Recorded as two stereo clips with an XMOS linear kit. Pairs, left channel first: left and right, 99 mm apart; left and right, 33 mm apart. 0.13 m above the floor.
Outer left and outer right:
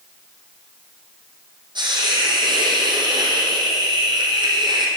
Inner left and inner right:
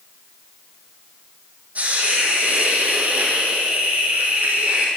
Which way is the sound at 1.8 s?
50° right (ahead or behind).